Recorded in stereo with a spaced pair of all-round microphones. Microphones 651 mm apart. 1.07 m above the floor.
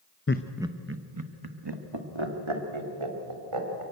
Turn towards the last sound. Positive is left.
turn(degrees=-50)  # may be behind; listen again after turning